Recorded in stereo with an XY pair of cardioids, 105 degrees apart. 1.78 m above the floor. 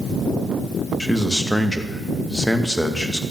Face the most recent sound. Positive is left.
turn(degrees=5)